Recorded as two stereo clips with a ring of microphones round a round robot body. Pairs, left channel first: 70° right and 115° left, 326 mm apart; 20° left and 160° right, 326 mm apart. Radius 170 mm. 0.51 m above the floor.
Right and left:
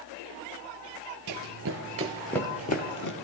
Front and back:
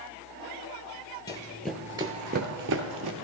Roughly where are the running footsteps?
Left.